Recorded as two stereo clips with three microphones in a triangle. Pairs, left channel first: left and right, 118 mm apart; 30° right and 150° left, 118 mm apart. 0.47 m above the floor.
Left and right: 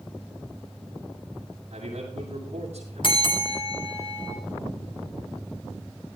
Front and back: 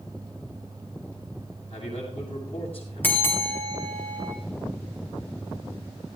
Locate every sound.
1.7 s a man speaking: 65° right, 6 m
3.0 s a bell: 45° left, 2.5 m